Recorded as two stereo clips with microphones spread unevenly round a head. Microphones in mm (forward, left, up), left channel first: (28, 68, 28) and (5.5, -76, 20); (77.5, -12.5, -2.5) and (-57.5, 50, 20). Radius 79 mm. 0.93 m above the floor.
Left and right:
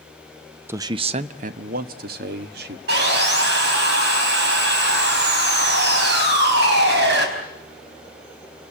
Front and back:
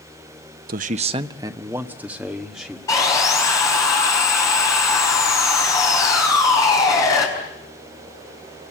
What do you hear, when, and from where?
0.7 s a man speaking: 170° right, 0.6 m; by 2.8 s 115° right, 2.0 m
2.9 s sawing: 100° right, 4.5 m